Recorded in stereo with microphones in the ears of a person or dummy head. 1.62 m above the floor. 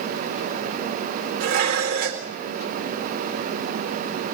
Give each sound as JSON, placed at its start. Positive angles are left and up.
{"t": 1.4, "sound": "dishes clattering", "side_deg": -60, "distance_m": 3.5}